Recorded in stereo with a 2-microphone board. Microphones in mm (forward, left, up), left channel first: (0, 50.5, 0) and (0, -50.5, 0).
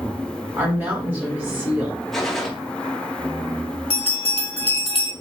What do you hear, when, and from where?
0.6 s a woman speaking: 20° right (ahead or behind), 1.6 m
2.1 s a gunshot: 5° left (ahead or behind), 0.7 m
3.9 s a bell: 65° left (ahead or behind), 0.8 m